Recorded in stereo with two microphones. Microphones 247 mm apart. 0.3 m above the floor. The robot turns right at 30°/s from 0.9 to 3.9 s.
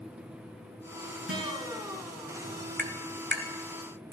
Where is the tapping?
45° right (ahead or behind), 1.4 m; by 4.2 s 50° right (ahead or behind), 1.4 m.